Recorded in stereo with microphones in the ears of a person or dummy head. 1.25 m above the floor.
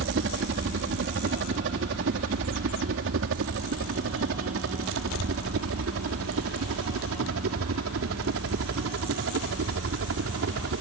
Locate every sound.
0.0 s a helicopter: 60° right (ahead or behind); by 10.8 s 70° right (ahead or behind)